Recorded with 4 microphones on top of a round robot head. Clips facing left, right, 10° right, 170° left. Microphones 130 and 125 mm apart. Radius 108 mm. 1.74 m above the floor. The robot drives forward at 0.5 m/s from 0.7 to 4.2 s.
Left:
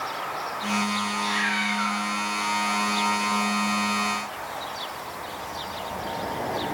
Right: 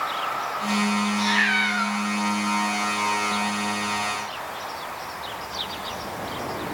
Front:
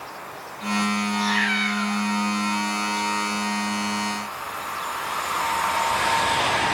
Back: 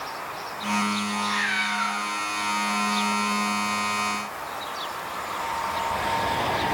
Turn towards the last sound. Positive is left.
turn(degrees=-125)